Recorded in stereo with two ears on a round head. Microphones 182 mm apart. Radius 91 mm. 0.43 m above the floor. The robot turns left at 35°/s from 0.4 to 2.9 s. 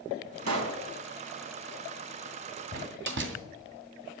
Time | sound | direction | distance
0.5 | a pop | 75° right (ahead or behind) | 2 m
2.7 | a door slam | 55° right (ahead or behind) | 2 m